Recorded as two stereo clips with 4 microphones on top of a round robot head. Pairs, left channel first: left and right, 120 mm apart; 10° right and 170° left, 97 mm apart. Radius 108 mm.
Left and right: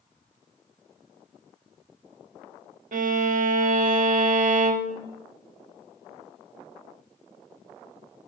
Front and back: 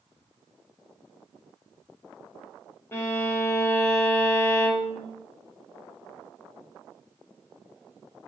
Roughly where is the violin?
Right.